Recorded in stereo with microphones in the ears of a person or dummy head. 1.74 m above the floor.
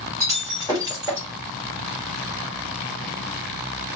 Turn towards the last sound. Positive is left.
turn(degrees=-15)  # may be behind; listen again after turning